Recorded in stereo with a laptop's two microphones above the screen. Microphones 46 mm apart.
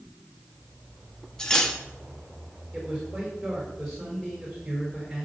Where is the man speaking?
Centre (ahead or behind), 4.5 m.